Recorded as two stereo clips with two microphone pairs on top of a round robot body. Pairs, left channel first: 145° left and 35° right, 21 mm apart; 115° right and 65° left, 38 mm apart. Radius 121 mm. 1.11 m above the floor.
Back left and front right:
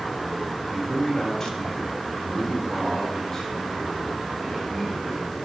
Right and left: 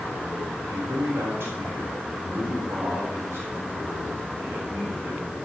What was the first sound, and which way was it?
A man speaking, 85° left.